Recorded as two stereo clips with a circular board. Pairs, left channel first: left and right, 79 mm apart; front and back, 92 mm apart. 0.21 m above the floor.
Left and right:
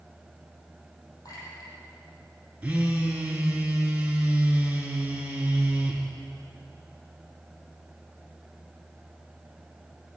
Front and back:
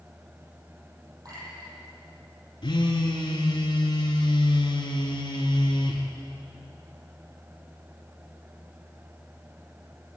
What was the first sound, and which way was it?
A clink, 135° left.